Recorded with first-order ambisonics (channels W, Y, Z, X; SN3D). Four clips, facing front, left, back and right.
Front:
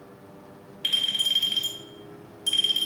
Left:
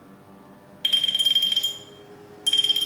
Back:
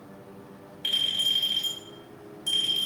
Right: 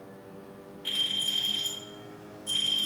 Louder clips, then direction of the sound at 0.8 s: Left 8 dB, front 1 dB; 65° left.